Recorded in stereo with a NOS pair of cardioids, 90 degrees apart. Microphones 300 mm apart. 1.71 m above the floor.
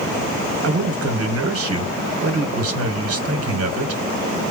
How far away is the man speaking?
About 1.4 m.